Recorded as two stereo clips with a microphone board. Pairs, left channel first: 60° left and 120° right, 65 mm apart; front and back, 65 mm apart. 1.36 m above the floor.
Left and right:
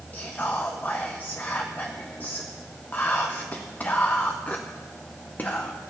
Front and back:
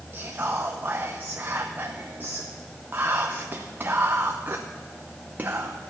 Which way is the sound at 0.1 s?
125° left.